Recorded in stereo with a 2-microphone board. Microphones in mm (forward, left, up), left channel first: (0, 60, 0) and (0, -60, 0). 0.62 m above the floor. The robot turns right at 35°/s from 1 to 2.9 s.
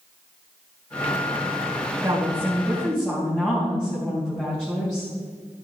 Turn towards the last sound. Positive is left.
turn(degrees=10)